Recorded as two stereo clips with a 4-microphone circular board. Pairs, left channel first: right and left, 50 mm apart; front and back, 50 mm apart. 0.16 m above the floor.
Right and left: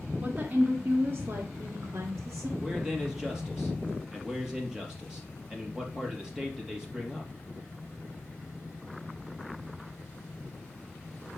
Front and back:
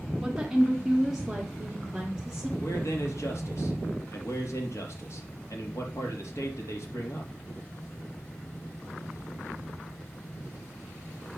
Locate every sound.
0.2 s a woman speaking: 115° left, 1.2 m; by 2.5 s 90° left, 2.5 m
2.6 s a man speaking: 15° left, 3.5 m